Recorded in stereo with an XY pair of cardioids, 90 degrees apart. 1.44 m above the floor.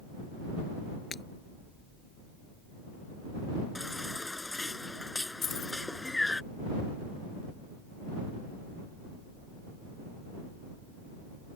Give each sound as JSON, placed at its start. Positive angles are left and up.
{"t": 1.1, "sound": "breaking glass", "azimuth_deg": 45}
{"t": 3.8, "sound": "a baby crying", "azimuth_deg": 15}
{"t": 5.4, "sound": "keys jangling", "azimuth_deg": 50}